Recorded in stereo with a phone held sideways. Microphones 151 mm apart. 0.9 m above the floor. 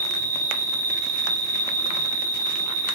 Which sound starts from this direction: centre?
An insect, at 0.0 s.